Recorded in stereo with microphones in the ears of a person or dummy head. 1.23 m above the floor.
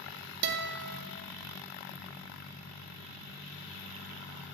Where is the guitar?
65° right (ahead or behind), 0.6 m.